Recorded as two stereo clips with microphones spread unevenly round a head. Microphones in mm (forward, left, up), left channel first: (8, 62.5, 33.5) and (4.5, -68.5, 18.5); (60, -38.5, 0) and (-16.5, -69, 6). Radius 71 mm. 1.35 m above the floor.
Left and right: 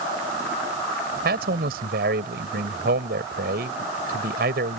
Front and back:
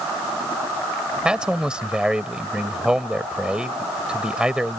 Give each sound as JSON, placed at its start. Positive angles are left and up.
{"t": 1.2, "sound": "a man speaking", "azimuth_deg": -80}